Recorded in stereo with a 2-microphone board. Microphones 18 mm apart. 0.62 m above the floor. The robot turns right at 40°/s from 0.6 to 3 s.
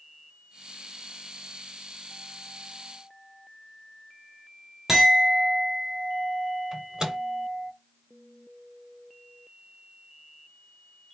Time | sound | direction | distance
4.9 | a clink | 20° right (ahead or behind) | 1.5 m
6.7 | a microwave | 35° right (ahead or behind) | 1.3 m